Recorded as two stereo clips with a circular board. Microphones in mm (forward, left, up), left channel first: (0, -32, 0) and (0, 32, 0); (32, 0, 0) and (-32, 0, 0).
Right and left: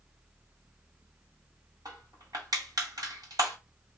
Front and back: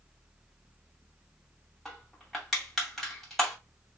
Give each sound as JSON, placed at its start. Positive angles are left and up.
{"t": 1.9, "sound": "crushing", "azimuth_deg": 90, "distance_m": 2.5}